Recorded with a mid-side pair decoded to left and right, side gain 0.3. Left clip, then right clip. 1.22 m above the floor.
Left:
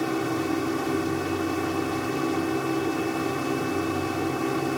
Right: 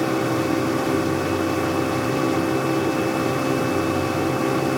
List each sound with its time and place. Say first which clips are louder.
0.0 s a machine running: right 5 dB; 65° right, 0.8 m